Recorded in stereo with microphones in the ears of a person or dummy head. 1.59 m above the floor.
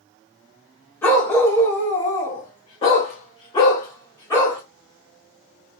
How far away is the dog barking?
About 1.9 m.